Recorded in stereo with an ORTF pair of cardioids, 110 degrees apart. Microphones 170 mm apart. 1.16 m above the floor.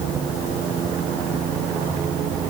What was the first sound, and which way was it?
Only background noise.